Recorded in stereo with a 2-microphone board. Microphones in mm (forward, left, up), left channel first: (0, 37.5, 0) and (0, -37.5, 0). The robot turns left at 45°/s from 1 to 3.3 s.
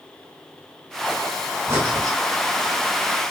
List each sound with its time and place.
1.7 s breathing: 30° right (ahead or behind), 5 m; by 2.2 s 55° right (ahead or behind), 5 m